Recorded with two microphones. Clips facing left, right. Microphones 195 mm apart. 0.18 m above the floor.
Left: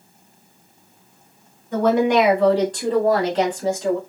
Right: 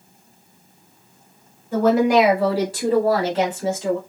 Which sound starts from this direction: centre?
A woman speaking, at 1.7 s.